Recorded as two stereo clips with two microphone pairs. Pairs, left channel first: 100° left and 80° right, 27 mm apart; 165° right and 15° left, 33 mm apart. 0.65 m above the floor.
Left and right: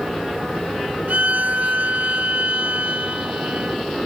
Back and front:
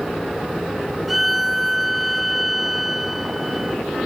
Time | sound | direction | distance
1.1 | a violin | 70° right | ?